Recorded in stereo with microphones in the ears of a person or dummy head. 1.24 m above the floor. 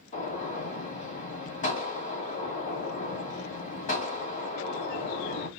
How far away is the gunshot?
About 1.2 m.